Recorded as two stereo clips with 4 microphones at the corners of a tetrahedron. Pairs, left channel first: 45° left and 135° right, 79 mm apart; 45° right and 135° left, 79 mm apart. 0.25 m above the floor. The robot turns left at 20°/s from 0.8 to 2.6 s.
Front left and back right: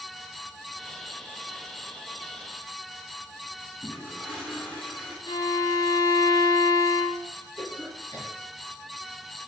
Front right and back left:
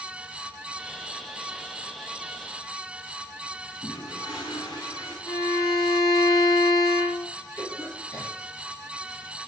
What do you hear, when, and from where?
3.8 s a toilet flushing: 30° right, 3 m
5.3 s a violin: straight ahead, 2.5 m
7.6 s a cough: 5° left, 4 m